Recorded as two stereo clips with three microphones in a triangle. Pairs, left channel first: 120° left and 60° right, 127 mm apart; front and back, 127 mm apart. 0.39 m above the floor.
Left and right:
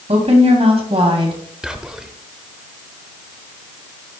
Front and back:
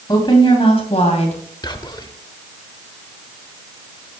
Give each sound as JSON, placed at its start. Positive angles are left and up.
{"t": 0.1, "sound": "a woman speaking", "azimuth_deg": -50, "distance_m": 2.5}
{"t": 1.6, "sound": "whispering", "azimuth_deg": 20, "distance_m": 1.0}